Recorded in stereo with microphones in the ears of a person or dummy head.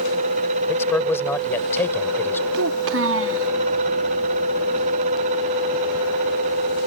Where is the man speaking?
15° left (ahead or behind).